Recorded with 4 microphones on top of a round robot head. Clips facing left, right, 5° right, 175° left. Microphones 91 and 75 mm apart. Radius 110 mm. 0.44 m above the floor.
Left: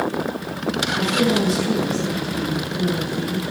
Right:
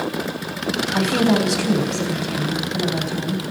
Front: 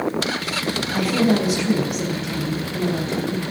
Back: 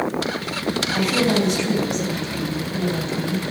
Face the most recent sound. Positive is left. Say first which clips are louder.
# right 3 dB, front 2 dB
turn(degrees=-90)